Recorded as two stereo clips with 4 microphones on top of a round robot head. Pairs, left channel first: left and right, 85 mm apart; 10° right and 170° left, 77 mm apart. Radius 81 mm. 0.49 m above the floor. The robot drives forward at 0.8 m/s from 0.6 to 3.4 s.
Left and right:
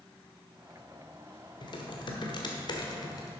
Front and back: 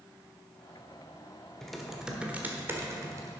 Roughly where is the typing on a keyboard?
Left.